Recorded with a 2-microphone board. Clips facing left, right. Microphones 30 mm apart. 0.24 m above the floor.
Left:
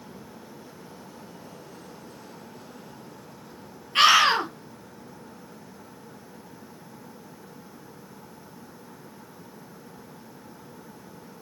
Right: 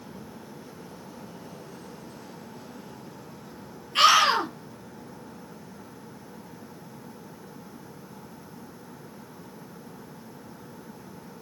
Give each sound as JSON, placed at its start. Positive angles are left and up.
{"t": 4.0, "sound": "a scream", "side_deg": 20, "distance_m": 3.0}